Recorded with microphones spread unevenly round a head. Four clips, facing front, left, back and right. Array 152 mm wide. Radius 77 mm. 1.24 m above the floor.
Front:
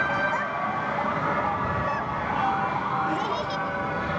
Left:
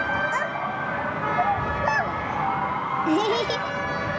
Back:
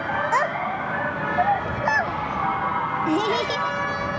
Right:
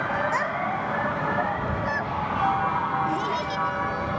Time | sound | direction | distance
0.3 | a child speaking | straight behind | ?